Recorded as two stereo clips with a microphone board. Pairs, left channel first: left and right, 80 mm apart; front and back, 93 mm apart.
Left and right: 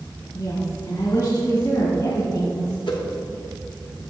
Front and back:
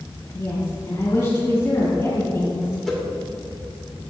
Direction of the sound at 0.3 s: 60° left.